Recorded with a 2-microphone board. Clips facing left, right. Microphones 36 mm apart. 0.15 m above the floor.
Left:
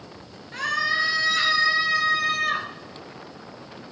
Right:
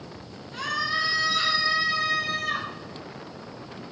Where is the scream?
55° left (ahead or behind), 3 m.